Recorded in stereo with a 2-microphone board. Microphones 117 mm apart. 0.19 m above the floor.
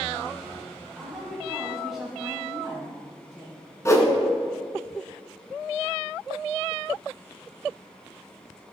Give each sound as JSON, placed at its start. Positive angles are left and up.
{"t": 0.9, "sound": "a woman speaking", "side_deg": -5, "distance_m": 1.5}
{"t": 3.9, "sound": "a whoosh", "side_deg": 25, "distance_m": 1.1}